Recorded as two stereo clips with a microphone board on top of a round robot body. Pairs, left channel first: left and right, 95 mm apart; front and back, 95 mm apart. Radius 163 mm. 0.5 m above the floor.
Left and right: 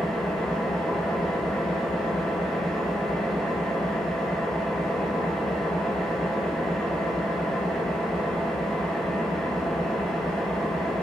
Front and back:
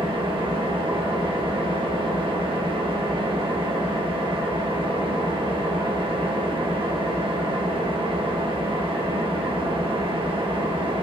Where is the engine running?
175° left, 1.8 m.